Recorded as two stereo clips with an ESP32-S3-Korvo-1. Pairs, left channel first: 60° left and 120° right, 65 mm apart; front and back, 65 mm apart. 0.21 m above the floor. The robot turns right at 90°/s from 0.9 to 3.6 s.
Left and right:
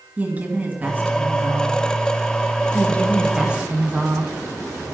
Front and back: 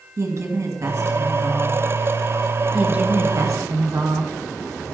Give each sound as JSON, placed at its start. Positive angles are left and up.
{"t": 0.2, "sound": "a woman speaking", "azimuth_deg": -175, "distance_m": 2.0}
{"t": 2.7, "sound": "a woman speaking", "azimuth_deg": 100, "distance_m": 2.0}